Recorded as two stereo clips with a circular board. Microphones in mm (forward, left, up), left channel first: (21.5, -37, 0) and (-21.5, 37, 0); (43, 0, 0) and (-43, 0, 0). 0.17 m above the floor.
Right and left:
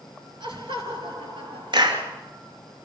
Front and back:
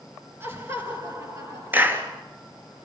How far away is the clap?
About 3 m.